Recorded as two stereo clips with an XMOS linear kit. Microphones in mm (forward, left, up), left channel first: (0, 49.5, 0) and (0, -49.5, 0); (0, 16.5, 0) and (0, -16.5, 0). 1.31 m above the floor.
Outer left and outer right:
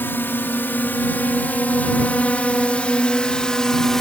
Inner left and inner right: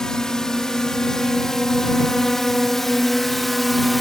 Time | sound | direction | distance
0.0 | a drone | 20° left (ahead or behind) | ?